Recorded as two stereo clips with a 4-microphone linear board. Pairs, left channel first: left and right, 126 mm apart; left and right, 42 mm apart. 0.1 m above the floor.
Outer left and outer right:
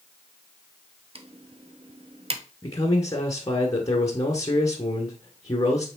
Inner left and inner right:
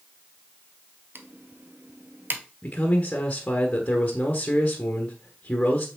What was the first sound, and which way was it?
Typing on a keyboard, 50° right (ahead or behind).